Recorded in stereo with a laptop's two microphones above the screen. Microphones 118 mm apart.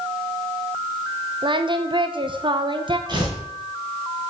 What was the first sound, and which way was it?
Singing, 45° right (ahead or behind).